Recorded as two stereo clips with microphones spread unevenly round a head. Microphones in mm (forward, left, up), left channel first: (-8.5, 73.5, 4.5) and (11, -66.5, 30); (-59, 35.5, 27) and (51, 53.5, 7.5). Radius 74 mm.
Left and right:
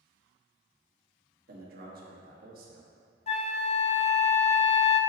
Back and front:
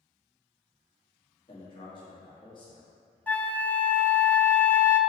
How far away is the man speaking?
About 1.6 m.